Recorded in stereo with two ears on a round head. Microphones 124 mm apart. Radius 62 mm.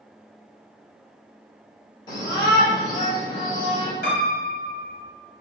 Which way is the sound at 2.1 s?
35° left (ahead or behind).